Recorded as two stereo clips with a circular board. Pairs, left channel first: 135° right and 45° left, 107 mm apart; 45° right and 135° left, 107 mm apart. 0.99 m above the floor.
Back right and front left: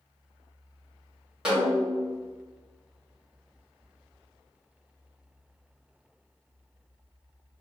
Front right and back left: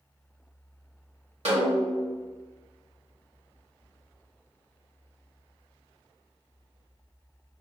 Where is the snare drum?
130° left, 1.4 m.